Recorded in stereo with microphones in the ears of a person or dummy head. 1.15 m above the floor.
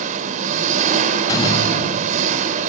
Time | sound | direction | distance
0.0 | an engine running | 40° right (ahead or behind) | 2 m
1.3 | a door slam | 25° left (ahead or behind) | 5 m